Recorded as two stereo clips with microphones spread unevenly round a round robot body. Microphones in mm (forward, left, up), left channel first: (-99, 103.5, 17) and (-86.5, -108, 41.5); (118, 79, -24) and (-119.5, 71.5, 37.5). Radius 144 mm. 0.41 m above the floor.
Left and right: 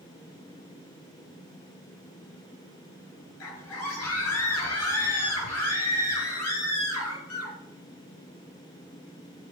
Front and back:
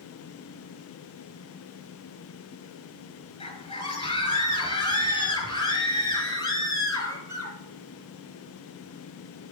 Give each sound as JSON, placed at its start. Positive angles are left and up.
{"t": 3.4, "sound": "a scream", "azimuth_deg": 70, "distance_m": 5.5}